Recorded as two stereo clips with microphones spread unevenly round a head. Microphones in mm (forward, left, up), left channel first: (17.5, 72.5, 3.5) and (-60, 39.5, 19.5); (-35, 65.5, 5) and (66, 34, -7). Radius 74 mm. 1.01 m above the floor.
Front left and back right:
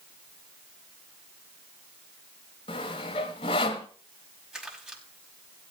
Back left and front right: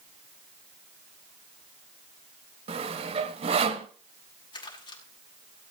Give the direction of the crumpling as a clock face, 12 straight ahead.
8 o'clock.